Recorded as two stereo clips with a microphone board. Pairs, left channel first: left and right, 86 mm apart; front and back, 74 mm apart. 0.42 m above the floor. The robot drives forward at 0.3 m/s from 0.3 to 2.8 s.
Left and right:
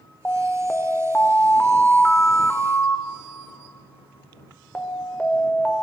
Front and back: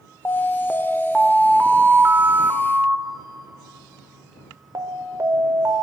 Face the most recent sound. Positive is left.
turn(degrees=160)